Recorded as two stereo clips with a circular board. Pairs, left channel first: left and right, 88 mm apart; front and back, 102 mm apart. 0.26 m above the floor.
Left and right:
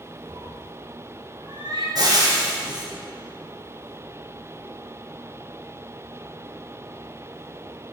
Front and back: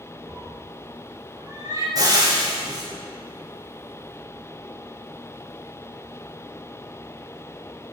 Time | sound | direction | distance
0.3 | a cat meowing | 120° right | 1.2 m
1.9 | frying | 130° right | 3 m